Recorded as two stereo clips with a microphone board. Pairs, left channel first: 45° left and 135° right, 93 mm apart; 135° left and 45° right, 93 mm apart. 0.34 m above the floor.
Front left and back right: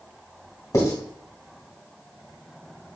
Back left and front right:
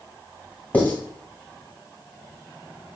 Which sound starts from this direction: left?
Writing, at 0.7 s.